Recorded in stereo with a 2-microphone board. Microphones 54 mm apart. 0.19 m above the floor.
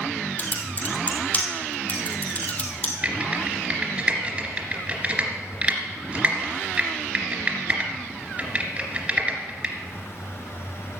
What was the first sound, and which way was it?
Typing on a keyboard, 30° left (ahead or behind).